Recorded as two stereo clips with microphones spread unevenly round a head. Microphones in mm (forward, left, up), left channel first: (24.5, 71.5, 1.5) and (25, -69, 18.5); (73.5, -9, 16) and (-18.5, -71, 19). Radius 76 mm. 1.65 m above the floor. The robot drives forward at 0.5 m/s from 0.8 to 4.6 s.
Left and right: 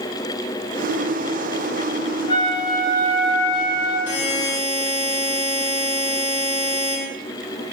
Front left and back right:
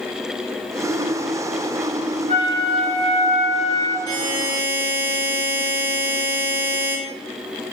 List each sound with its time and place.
2.3 s a flute: 160° left, 2 m; by 4.0 s 165° left, 3 m
4.1 s a buzzer: 105° left, 6 m; by 7.0 s 110° left, 6 m